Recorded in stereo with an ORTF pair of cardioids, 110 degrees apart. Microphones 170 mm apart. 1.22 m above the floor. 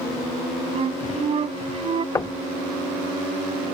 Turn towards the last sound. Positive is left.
turn(degrees=20)